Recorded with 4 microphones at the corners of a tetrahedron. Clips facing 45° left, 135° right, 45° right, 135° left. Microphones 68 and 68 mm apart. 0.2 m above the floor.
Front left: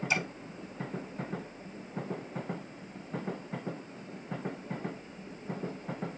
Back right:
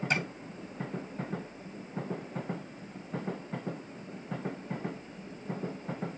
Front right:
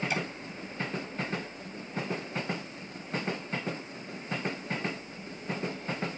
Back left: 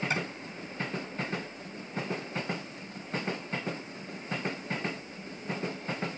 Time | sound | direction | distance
0.1 | tapping | 175° right | 8 m